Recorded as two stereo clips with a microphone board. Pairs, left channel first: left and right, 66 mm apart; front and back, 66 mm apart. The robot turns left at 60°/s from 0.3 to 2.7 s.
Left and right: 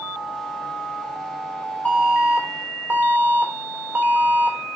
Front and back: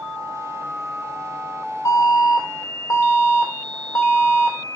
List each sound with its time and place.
1.9 s an alarm: 25° left, 3 m; by 4.6 s 25° right, 3 m